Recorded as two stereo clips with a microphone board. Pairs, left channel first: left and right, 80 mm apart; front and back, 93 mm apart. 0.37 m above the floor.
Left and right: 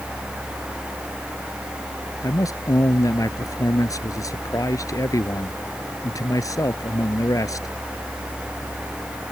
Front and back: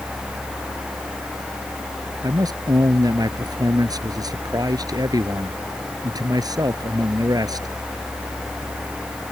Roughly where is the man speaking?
Behind left.